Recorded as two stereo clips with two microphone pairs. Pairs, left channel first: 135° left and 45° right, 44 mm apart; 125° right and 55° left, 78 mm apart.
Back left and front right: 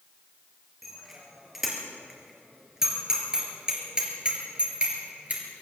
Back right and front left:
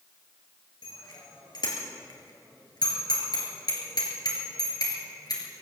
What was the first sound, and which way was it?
A bicycle bell, 130° right.